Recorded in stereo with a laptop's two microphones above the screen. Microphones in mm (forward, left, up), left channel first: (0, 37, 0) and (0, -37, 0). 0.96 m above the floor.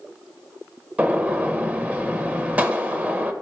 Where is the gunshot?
20° right (ahead or behind), 1.1 m.